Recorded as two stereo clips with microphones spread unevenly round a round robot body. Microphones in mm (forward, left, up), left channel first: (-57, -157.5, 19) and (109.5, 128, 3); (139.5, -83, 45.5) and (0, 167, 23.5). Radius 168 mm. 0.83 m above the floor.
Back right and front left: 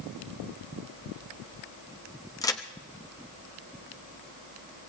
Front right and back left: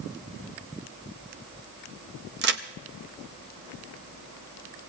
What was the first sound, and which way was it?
A crack, 160° left.